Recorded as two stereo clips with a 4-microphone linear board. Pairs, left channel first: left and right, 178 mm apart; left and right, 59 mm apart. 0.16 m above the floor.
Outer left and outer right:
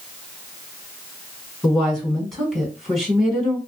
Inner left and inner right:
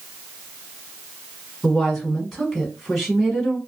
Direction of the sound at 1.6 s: Centre (ahead or behind).